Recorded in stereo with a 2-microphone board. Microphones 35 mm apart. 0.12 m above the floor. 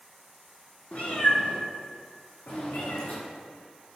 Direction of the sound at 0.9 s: 45° left (ahead or behind).